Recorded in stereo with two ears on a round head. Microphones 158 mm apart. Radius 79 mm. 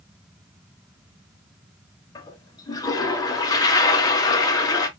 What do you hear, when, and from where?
2.1 s a toilet flushing: 20° left (ahead or behind), 1.0 m